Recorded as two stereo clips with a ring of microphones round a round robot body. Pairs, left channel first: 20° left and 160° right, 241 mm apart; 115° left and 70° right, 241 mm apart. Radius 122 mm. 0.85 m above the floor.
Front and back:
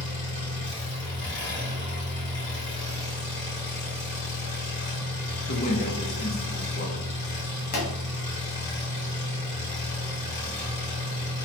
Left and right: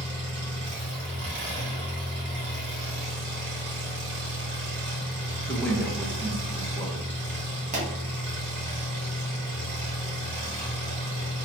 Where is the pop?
15° right, 1.2 m.